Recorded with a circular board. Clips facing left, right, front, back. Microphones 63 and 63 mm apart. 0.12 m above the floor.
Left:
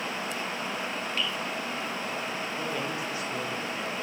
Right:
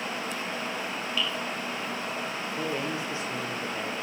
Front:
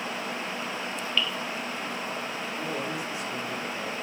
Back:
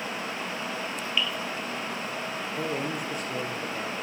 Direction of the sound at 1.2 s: 105° left.